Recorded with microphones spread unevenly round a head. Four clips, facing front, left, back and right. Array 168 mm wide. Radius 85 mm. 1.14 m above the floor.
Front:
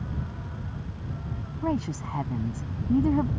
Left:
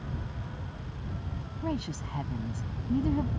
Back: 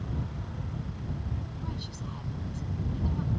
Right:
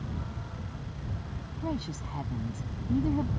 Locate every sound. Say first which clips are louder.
1.6 s a woman speaking: left 1 dB, front 11 dB; straight ahead